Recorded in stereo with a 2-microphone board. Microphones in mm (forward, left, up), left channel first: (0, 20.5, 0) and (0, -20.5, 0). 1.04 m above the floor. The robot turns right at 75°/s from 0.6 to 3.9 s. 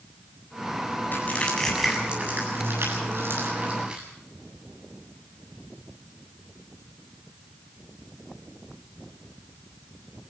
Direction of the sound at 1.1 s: 50° left (ahead or behind).